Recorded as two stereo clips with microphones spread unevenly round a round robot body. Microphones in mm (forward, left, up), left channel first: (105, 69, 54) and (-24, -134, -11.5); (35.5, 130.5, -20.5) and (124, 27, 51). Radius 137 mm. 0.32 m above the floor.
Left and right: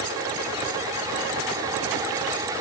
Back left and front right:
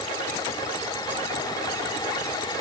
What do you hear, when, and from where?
Only background noise.